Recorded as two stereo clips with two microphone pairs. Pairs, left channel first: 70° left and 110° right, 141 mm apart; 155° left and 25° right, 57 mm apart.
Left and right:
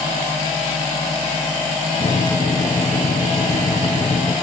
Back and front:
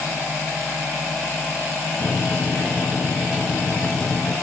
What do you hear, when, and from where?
2.0 s a microwave: 100° left, 1.5 m